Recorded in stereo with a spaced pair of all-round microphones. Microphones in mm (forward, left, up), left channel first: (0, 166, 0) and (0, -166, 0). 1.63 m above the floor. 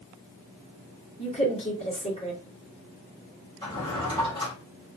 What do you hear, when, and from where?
1.2 s a woman speaking: 20° left (ahead or behind), 1.6 m
3.6 s a drawer: 15° left (ahead or behind), 1.7 m